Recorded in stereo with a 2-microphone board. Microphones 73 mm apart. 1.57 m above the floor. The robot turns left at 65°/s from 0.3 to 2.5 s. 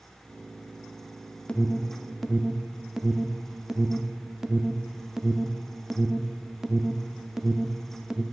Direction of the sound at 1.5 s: 15° left (ahead or behind).